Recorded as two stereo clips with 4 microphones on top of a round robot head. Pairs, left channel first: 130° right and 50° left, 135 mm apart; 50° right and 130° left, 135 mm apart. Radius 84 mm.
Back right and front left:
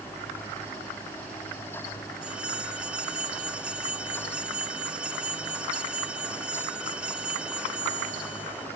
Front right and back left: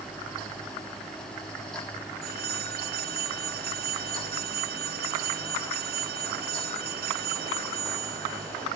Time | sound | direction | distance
2.2 | a phone ringing | 135° left | ?